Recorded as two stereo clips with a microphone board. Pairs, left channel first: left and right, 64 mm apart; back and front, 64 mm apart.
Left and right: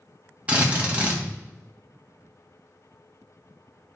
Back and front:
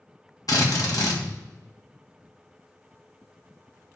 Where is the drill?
155° right, 1.6 m.